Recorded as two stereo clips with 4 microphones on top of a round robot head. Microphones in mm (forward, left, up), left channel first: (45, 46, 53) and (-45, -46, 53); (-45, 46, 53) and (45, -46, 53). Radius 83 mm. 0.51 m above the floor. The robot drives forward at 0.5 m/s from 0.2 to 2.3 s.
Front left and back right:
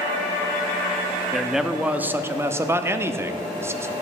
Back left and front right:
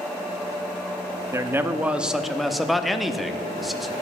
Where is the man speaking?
40° right, 1.0 m; by 3.9 s 135° right, 0.9 m.